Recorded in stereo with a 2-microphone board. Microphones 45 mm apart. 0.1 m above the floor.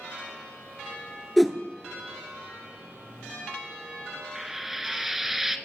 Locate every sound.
1.4 s a whoosh: centre (ahead or behind), 0.7 m
4.3 s frying: 5° right (ahead or behind), 0.6 m